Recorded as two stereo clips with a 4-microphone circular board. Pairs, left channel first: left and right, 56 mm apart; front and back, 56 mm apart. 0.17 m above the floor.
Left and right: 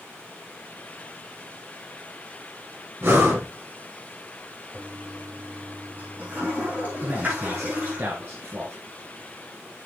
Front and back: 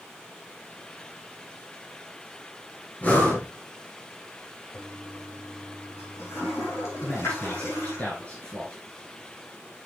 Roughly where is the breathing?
Ahead right.